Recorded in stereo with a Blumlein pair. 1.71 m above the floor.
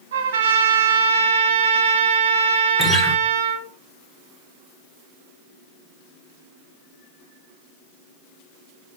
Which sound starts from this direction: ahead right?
A trumpet, at 0.1 s.